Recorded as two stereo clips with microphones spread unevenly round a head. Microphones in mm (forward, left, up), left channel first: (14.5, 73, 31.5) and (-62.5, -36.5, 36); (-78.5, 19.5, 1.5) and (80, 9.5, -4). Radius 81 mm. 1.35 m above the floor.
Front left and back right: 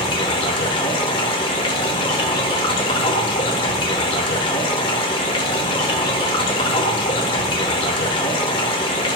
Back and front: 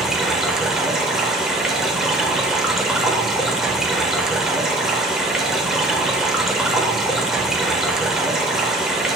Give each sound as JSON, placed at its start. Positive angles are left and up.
{"t": 0.0, "sound": "running water", "azimuth_deg": 85, "distance_m": 1.2}